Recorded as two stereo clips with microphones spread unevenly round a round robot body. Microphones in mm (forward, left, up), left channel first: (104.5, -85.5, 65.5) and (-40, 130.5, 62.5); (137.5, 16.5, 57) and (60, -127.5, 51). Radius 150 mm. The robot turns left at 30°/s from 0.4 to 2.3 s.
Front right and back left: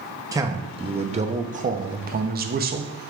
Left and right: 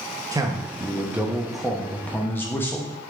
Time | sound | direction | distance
0.3 | a man speaking | 170° right | 0.9 m